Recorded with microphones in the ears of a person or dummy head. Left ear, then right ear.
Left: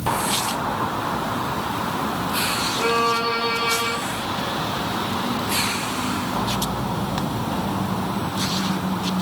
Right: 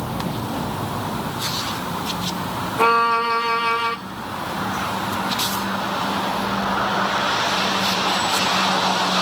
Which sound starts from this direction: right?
A violin, at 2.8 s.